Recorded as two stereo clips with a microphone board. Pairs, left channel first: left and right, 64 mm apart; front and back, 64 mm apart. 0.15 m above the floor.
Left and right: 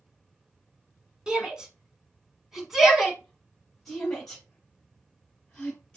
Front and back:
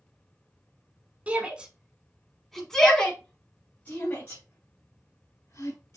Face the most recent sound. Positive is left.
turn(degrees=15)